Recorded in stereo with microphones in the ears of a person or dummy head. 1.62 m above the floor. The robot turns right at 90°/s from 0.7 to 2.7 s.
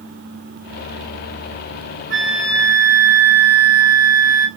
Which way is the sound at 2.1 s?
120° right.